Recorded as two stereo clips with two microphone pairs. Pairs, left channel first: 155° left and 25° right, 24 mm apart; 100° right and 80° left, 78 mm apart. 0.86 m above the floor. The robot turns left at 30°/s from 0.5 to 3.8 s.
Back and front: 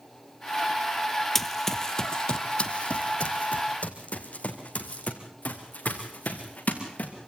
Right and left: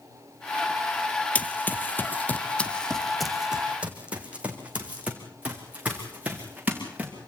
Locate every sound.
1.4 s running footsteps: 130° right, 0.9 m; by 7.1 s 150° left, 4 m